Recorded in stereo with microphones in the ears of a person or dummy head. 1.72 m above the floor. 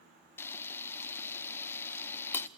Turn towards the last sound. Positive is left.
turn(degrees=15)  # may be behind; listen again after turning